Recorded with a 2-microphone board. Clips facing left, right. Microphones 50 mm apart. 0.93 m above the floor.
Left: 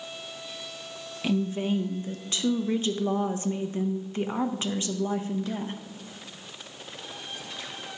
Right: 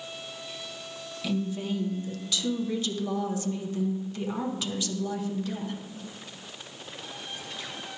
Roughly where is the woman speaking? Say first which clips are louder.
Left 4 dB; left.